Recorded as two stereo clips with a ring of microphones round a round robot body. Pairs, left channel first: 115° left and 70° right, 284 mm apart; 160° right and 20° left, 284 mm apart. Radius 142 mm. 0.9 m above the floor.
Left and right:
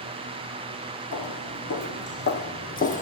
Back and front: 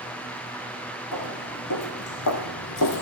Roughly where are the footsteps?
Behind.